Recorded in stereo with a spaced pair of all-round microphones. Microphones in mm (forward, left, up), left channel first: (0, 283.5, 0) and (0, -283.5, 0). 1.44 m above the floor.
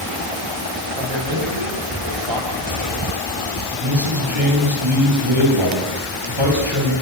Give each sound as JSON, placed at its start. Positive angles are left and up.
{"t": 1.0, "sound": "a man speaking", "side_deg": -50, "distance_m": 9.5}
{"t": 3.8, "sound": "a man speaking", "side_deg": -55, "distance_m": 10.0}